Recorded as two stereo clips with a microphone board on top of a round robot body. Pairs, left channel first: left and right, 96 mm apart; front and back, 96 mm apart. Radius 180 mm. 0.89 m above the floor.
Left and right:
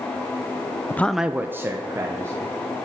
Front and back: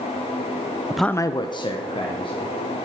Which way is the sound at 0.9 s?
120° left.